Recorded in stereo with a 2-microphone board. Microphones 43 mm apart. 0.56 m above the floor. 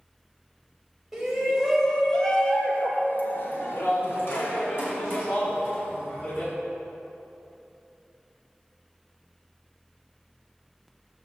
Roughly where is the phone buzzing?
No phone buzzing in this recording.